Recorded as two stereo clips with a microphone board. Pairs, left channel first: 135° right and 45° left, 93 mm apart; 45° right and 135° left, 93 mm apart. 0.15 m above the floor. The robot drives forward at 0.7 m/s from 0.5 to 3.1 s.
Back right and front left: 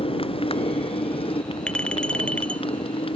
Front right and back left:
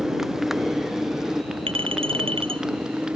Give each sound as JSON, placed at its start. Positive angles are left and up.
{"t": 0.0, "sound": "a motorcycle", "azimuth_deg": -140}
{"t": 1.7, "sound": "a clink", "azimuth_deg": 145}